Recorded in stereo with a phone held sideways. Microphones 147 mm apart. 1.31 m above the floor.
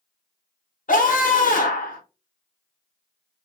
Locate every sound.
0.9 s a scream: 75° left (ahead or behind), 0.6 m